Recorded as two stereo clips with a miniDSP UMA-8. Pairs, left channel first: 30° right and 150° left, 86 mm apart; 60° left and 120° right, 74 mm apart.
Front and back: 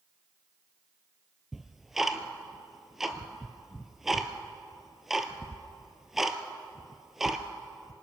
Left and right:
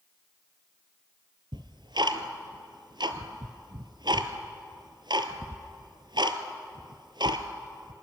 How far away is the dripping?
I don't hear dripping.